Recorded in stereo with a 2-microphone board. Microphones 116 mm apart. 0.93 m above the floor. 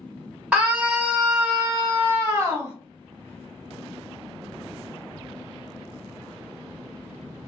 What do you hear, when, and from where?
0.5 s a scream: 10° right (ahead or behind), 1.5 m; by 2.8 s 20° right (ahead or behind), 0.9 m